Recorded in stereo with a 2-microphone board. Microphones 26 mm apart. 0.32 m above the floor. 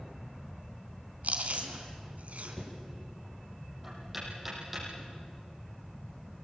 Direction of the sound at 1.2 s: 65° right (ahead or behind).